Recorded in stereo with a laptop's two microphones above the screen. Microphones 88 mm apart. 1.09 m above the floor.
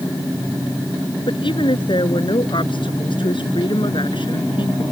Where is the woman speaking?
70° left (ahead or behind).